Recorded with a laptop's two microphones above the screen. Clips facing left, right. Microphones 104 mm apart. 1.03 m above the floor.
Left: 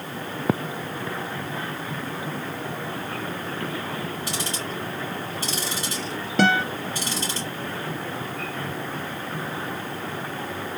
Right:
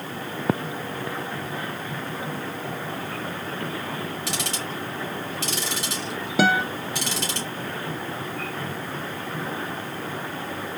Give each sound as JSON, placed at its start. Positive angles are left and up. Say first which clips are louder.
{"t": 4.3, "sound": "ticking", "louder": "even", "side_deg": -85, "distance_m": 2.5}
{"t": 6.4, "sound": "a guitar", "louder": "even", "side_deg": -5, "distance_m": 0.6}